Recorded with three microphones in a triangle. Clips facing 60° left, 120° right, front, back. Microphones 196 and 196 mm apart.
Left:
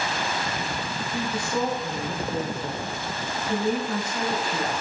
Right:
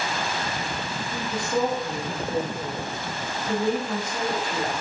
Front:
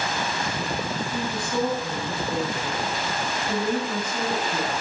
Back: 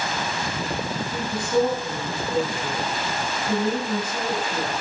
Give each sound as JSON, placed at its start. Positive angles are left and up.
{"t": 1.1, "sound": "a woman speaking", "azimuth_deg": -160, "distance_m": 1.0}